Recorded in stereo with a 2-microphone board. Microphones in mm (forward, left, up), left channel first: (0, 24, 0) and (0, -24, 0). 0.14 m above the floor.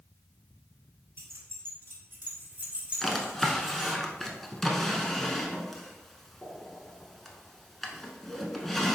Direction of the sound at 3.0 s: 5° left (ahead or behind).